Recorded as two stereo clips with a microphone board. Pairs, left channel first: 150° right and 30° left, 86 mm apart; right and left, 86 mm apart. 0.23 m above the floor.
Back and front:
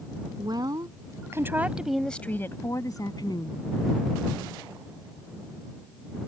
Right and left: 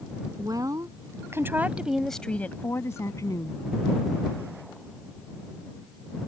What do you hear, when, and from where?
0.4 s a woman speaking: 55° left; by 3.6 s 130° right